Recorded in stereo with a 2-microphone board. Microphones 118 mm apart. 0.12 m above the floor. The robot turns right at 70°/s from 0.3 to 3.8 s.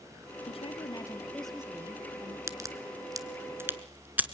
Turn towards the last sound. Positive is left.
turn(degrees=-15)  # may be behind; listen again after turning